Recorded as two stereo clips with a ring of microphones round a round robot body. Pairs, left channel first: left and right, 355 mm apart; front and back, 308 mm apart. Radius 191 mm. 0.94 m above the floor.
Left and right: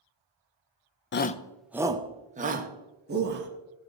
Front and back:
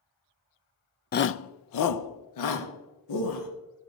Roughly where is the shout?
Ahead left.